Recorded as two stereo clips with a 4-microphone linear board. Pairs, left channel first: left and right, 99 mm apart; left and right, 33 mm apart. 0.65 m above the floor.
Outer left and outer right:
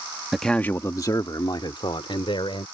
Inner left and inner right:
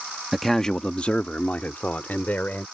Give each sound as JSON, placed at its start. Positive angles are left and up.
{"t": 0.3, "sound": "a man speaking", "side_deg": 0}